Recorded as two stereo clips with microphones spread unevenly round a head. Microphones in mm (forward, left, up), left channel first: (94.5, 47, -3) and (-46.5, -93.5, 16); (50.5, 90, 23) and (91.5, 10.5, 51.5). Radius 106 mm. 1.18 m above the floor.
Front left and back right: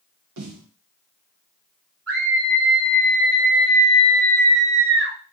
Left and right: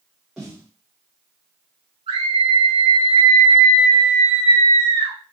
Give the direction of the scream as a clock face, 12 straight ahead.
4 o'clock.